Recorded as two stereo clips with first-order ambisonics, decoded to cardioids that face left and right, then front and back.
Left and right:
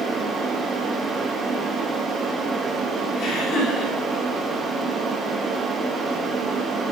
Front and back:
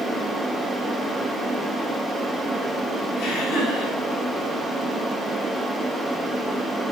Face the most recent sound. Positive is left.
turn(degrees=35)